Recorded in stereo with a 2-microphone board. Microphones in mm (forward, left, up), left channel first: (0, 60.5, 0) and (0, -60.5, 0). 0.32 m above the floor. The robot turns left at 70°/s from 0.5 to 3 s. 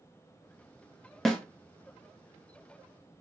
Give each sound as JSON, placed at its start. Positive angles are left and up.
{"t": 1.2, "sound": "a snare drum", "side_deg": 0, "distance_m": 0.6}